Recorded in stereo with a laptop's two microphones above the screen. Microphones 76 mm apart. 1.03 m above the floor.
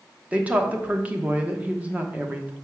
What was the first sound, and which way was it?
A woman speaking, 20° right (ahead or behind).